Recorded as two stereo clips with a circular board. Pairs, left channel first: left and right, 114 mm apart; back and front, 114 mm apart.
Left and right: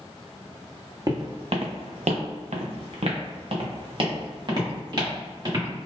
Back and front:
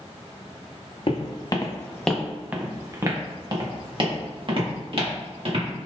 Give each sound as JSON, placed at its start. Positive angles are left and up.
{"t": 1.1, "sound": "footsteps", "azimuth_deg": -145, "distance_m": 0.8}